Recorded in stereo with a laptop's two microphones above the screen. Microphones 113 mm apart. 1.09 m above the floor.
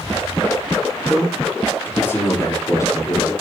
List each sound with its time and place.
1.1 s a man speaking: 5° left (ahead or behind), 2.5 m; by 3.3 s 30° left (ahead or behind), 3.5 m